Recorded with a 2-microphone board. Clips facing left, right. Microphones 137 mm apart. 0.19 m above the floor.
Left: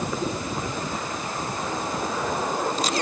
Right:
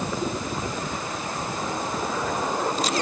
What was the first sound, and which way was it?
Only background noise.